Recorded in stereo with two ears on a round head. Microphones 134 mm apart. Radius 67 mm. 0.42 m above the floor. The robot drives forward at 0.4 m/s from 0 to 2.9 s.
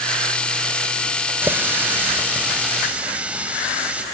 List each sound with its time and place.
1.4 s a running tap: 15° right (ahead or behind), 0.9 m; by 4.0 s 10° right (ahead or behind), 1.4 m